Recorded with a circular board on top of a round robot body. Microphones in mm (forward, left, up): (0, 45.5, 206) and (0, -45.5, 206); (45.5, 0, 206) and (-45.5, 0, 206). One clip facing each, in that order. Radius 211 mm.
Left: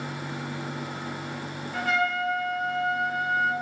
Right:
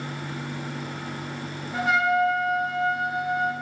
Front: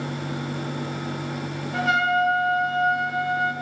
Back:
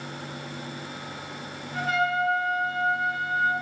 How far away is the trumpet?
About 3 m.